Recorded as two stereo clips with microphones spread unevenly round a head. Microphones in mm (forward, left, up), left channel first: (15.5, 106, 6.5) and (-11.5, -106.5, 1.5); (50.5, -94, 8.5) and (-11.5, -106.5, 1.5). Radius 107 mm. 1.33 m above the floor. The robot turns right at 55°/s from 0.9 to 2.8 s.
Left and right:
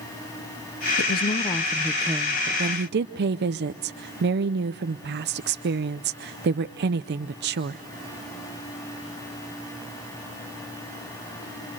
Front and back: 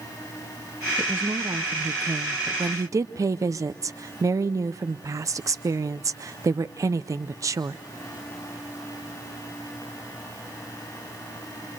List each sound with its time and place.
1.0 s a woman speaking: 120° left, 0.6 m; by 7.8 s 140° right, 0.6 m